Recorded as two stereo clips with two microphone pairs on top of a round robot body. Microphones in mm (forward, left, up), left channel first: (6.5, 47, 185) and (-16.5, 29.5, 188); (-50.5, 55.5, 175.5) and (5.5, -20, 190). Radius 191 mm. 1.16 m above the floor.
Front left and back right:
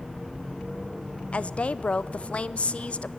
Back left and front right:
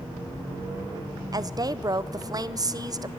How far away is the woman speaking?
About 0.8 m.